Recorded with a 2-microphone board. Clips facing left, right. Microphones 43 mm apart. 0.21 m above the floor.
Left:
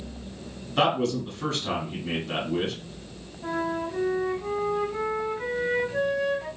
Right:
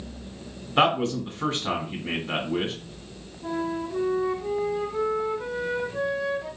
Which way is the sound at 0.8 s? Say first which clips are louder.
Right 2 dB; 25° right (ahead or behind).